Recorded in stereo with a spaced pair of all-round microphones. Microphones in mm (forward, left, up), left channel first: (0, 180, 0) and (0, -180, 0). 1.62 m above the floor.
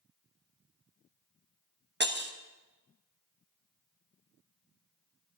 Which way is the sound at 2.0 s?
30° right (ahead or behind).